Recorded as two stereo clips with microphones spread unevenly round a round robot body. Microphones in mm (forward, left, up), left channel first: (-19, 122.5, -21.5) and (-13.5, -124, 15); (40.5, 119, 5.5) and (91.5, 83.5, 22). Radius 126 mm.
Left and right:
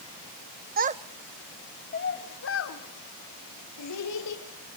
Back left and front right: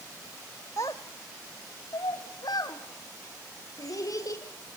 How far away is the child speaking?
About 0.8 m.